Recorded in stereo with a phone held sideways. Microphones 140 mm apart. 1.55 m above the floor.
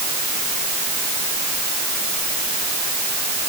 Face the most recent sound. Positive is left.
No sound to turn to.